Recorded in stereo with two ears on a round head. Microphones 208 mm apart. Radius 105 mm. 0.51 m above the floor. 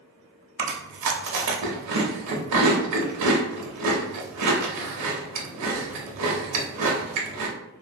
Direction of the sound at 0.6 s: 80° right.